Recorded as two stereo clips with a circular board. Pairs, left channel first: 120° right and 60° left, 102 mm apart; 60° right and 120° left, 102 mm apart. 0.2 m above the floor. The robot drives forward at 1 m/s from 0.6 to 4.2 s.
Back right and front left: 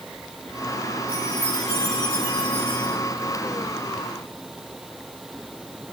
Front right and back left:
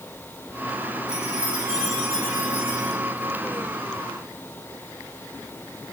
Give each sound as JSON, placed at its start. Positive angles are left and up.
{"t": 1.1, "sound": "a chime", "azimuth_deg": -155, "distance_m": 9.5}